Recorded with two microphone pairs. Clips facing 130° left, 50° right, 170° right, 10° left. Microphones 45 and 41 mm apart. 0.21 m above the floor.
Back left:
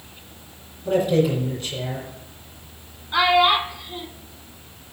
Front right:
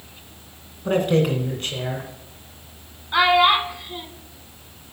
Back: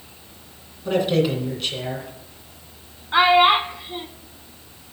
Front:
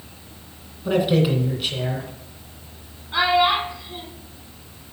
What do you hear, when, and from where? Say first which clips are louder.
0.8 s a man speaking: even, front 1 dB; 70° right, 2 m
3.1 s a child speaking: front right 1 dB, back 4 dB; 125° right, 0.9 m